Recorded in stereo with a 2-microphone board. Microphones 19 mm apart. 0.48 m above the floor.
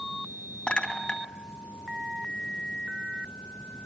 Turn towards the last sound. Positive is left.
turn(degrees=70)  # may be behind; listen again after turning